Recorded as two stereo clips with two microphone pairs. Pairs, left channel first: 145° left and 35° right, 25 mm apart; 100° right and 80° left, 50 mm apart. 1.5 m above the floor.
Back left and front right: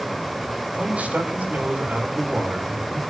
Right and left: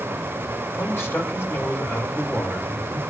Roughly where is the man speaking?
Ahead right.